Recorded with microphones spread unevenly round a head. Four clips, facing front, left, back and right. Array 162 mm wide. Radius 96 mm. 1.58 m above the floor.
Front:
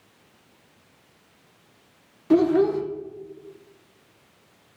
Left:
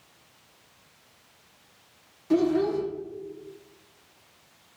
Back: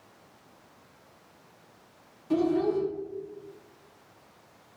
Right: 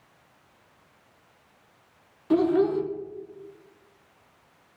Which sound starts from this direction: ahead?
A child speaking, at 2.3 s.